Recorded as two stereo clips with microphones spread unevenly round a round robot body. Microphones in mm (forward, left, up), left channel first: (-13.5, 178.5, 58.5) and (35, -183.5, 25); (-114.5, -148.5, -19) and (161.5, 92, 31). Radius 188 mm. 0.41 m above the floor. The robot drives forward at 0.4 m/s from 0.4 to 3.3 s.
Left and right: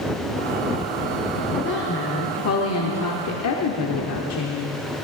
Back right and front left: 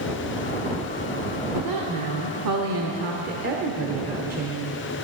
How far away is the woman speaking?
About 1.1 m.